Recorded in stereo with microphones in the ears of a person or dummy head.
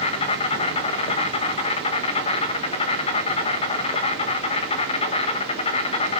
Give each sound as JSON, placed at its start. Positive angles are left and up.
{"t": 0.0, "sound": "an insect", "side_deg": 35, "distance_m": 1.3}